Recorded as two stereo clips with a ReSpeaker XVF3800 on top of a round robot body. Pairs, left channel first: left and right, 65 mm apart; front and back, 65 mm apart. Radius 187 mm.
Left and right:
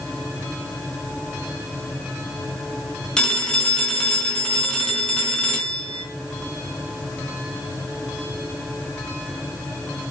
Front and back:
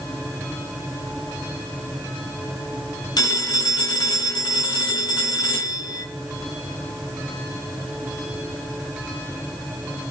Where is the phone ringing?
15° left, 3.5 m.